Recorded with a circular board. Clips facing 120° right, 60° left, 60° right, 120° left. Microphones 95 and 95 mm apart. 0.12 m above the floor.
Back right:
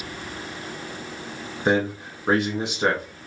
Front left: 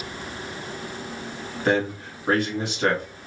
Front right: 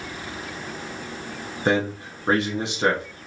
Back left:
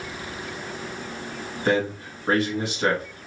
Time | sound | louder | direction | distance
1.6 | a man speaking | back right 1 dB, front right 1 dB | 85° right | 1.1 m